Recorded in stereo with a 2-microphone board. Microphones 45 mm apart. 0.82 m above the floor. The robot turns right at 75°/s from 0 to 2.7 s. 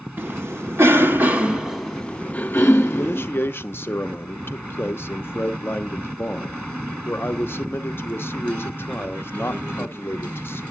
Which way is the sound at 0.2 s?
45° right (ahead or behind).